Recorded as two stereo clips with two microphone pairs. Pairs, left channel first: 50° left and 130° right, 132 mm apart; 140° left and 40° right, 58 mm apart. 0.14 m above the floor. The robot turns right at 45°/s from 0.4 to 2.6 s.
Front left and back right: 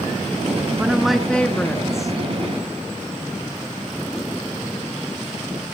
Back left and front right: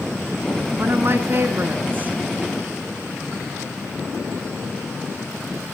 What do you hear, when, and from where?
0.8 s a woman speaking: 55° right, 1.4 m; by 2.1 s 5° left, 1.4 m